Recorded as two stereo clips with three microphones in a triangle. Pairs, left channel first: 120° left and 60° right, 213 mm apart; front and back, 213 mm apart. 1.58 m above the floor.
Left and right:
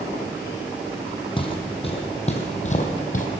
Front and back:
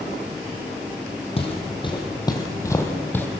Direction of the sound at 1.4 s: 60° left.